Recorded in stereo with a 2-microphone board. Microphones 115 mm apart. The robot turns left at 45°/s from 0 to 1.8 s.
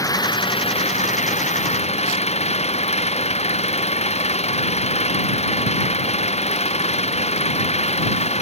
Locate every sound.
0.0 s an engine running: 150° left; by 8.4 s 70° left